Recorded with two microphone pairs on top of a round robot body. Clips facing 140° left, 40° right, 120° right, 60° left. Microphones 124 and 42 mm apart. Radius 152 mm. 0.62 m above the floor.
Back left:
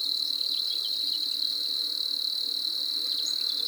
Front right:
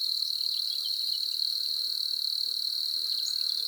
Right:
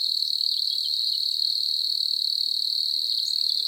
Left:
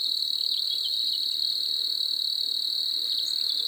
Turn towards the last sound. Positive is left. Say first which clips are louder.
# back left 4 dB, right 2 dB
turn(degrees=125)